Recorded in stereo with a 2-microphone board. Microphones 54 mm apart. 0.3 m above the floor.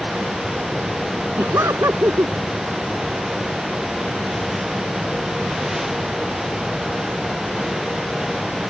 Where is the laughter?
70° right (ahead or behind).